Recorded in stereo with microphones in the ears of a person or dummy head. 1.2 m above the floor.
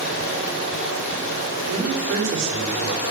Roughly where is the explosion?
I don't hear an explosion.